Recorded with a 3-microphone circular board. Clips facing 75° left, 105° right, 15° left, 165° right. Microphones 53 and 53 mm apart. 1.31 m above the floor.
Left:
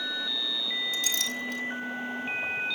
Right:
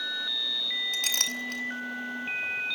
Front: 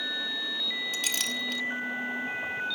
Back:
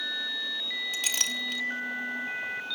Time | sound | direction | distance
0.9 | a clink | 80° right | 2 m